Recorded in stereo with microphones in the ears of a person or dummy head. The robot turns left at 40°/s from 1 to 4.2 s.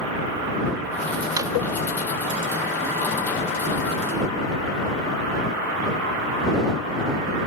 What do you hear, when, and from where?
1.4 s a drawer: 15° right (ahead or behind); by 1.5 s 10° right (ahead or behind)